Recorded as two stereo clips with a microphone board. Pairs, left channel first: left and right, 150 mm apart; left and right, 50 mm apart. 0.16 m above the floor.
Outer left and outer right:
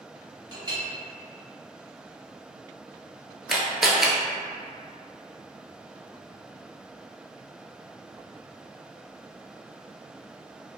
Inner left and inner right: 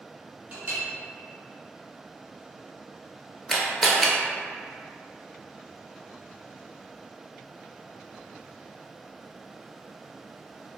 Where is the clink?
35° right (ahead or behind), 1.3 m.